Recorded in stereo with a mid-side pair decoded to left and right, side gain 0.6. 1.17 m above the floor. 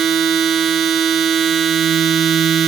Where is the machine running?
50° right, 0.9 m.